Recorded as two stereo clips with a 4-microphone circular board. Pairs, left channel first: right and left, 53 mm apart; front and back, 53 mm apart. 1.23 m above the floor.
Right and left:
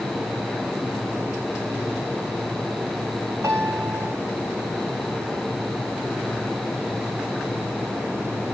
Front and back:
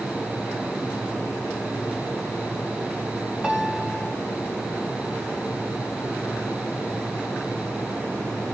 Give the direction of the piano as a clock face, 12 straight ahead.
8 o'clock.